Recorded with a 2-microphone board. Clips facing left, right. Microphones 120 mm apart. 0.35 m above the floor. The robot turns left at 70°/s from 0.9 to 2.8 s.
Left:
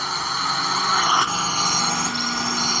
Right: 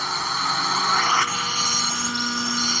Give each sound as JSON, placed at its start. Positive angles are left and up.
{"t": 0.0, "sound": "a drone", "side_deg": 0}